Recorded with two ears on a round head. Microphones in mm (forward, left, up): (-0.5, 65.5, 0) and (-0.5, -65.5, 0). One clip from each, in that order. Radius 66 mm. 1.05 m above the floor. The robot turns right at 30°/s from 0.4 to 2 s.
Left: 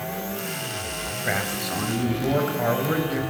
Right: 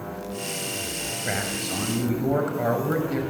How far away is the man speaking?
About 6 m.